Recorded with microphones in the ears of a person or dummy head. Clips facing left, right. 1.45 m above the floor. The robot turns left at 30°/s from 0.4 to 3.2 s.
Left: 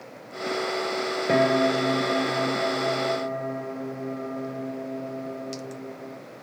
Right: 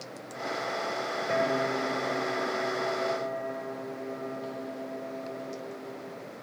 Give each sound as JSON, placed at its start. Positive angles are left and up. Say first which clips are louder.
{"t": 1.3, "sound": "a piano", "louder": "left 8 dB", "azimuth_deg": 125, "distance_m": 2.5}